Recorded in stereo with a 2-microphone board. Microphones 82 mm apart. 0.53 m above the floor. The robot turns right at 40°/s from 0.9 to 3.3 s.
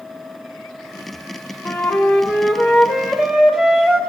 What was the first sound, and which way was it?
A flute, 15° left (ahead or behind).